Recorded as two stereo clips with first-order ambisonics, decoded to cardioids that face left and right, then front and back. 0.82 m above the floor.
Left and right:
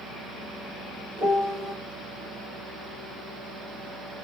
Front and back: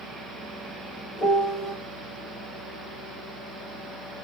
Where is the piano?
35° right, 1.6 m.